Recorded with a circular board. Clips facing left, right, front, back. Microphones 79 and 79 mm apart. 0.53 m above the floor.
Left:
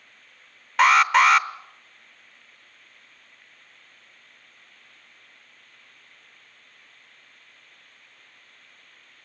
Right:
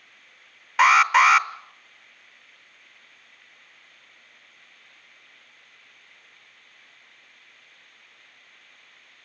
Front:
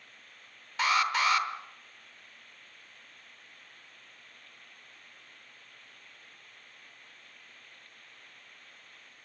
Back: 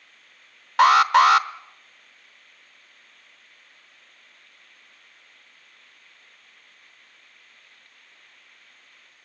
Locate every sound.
0.8 s an alarm: straight behind, 0.9 m